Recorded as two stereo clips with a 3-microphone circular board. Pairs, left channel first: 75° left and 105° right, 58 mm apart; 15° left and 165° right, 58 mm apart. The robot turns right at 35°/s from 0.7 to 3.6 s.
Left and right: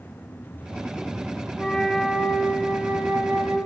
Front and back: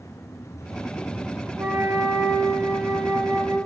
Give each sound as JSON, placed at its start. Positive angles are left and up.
{"t": 1.6, "sound": "a flute", "azimuth_deg": 155, "distance_m": 1.1}